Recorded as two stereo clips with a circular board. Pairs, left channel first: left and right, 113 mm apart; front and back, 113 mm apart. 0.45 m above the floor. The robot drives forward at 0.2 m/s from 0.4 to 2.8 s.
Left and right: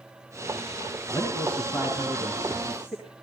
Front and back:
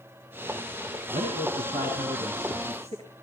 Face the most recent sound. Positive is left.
turn(degrees=-170)